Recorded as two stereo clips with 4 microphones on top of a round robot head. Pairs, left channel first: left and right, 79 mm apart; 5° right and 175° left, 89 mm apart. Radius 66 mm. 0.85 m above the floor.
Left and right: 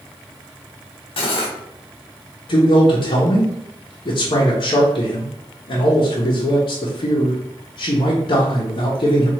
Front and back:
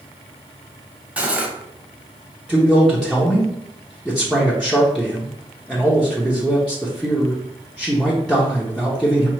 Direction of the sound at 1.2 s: 95° left.